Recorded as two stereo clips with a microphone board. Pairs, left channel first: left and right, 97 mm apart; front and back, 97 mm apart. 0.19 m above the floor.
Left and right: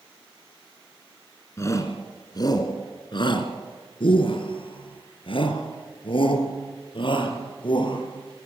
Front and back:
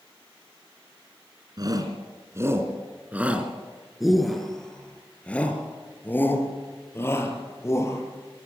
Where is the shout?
145° left, 2.5 m; by 8.0 s 60° left, 5 m.